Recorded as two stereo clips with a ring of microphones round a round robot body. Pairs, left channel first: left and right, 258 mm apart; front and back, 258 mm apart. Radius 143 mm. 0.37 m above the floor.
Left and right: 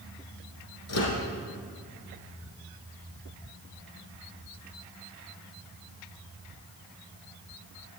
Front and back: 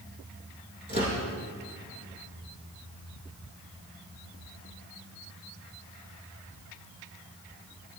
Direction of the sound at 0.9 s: 115° left.